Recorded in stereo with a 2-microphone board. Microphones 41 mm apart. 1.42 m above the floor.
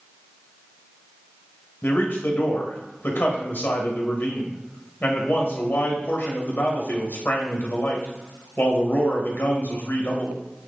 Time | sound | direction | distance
1.8 | a man speaking | 60° left (ahead or behind) | 1.5 m